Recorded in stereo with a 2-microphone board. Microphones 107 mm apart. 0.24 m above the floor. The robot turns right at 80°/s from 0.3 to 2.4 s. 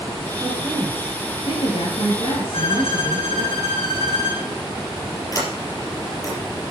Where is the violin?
70° left (ahead or behind), 3.5 m.